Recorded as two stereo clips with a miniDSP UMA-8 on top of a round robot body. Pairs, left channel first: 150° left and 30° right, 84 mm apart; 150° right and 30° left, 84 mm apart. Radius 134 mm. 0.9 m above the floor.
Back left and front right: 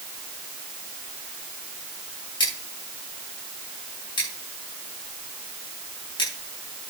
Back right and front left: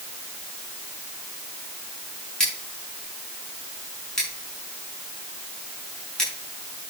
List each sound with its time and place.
2.4 s scissors: 130° left, 8 m